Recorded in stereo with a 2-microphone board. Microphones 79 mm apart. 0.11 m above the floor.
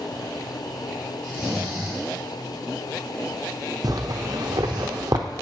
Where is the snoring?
10° right (ahead or behind), 3 m.